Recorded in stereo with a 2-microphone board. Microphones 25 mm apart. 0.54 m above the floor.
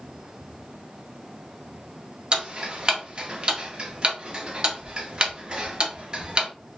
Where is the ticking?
35° right (ahead or behind), 0.5 m.